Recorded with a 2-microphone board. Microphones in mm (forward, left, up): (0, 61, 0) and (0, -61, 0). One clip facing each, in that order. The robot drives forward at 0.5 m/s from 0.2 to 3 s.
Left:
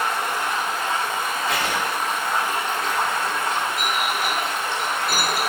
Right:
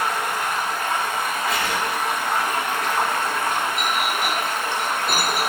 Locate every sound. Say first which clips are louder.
0.0 s running water: even; 50° right (ahead or behind), 1.4 m; by 5.5 s 60° right (ahead or behind), 1.2 m
1.5 s writing: even; 85° left, 1.0 m; by 1.8 s 80° left, 1.0 m
3.8 s a clink: right 1 dB; 25° right (ahead or behind), 0.7 m